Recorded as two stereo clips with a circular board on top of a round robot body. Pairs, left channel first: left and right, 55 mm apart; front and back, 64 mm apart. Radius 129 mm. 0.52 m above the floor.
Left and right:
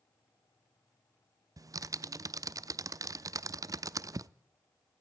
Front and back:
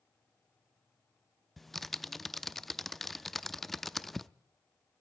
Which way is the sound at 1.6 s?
85° right.